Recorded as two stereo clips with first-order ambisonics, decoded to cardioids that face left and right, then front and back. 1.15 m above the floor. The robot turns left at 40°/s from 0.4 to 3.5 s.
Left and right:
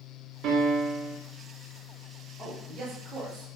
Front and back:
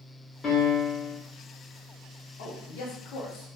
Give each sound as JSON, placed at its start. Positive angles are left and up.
{"t": 0.4, "sound": "a piano", "azimuth_deg": -65, "distance_m": 0.7}
{"t": 2.4, "sound": "a man speaking", "azimuth_deg": 0, "distance_m": 0.7}